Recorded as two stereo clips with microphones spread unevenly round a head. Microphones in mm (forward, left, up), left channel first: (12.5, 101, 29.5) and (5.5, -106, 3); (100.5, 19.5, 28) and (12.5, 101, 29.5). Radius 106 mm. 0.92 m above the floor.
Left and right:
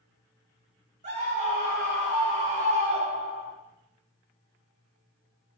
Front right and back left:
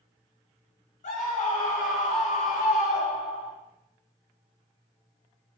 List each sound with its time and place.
1.0 s a scream: 35° right, 5 m